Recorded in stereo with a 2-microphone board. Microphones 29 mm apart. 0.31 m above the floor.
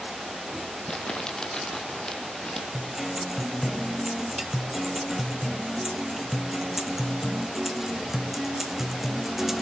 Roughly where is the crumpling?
Left.